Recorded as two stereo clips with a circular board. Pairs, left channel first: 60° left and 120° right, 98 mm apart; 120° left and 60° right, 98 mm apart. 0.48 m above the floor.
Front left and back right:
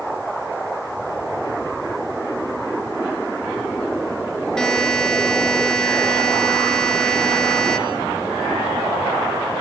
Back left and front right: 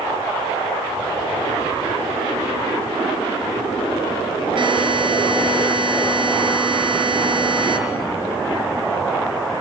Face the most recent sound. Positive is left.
turn(degrees=-25)